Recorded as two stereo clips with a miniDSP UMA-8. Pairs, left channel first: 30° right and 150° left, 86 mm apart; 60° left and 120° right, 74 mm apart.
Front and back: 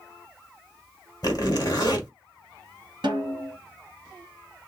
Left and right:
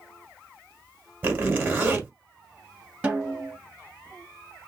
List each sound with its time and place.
1.2 s a zipper: 65° right, 1.6 m
3.0 s a snare drum: 170° left, 1.5 m